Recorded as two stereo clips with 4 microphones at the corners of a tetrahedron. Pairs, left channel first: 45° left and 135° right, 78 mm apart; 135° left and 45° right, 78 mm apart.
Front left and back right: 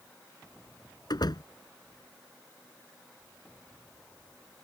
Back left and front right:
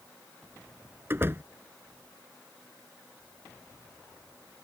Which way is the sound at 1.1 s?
20° left.